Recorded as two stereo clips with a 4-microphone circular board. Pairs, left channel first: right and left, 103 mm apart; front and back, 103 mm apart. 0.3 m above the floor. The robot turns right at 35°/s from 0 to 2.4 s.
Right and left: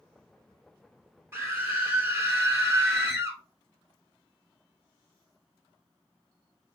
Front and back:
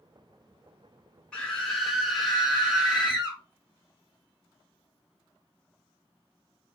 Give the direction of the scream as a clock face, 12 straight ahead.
10 o'clock.